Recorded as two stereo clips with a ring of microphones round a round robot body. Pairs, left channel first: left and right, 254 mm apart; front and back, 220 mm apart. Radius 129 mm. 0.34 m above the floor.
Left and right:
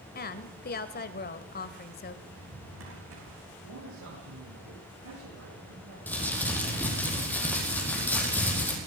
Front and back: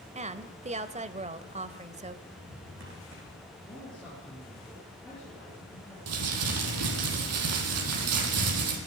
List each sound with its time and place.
0.1 s a woman speaking: 130° left, 1.6 m
2.3 s a drawer: 130° right, 7.5 m
3.6 s a man speaking: 85° right, 9.5 m
6.1 s crumpling: 175° left, 6.5 m